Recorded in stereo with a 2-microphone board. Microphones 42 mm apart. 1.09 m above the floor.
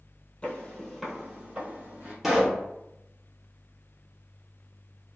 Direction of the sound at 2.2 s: 5° right (ahead or behind).